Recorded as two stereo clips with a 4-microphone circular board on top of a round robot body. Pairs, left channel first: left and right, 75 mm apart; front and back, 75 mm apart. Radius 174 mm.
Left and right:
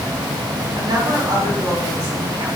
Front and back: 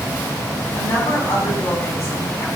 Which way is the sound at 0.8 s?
55° right.